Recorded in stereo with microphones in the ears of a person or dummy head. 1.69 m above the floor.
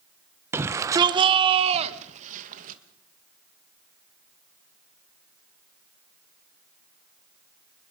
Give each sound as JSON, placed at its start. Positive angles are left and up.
{"t": 0.5, "sound": "a shout", "side_deg": -15, "distance_m": 1.2}